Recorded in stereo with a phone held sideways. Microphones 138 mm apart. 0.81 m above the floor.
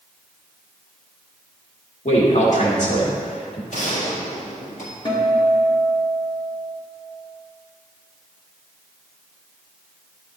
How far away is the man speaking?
About 2 m.